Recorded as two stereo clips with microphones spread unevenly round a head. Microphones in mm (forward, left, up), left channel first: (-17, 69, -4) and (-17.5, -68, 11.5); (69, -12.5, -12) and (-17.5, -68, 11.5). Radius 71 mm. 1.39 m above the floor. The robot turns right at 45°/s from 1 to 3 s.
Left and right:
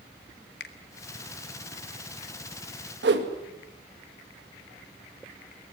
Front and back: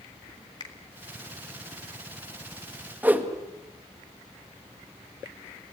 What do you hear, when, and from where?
0.6 s a finger snap: 100° left, 1.7 m
3.0 s a whoosh: 75° right, 1.9 m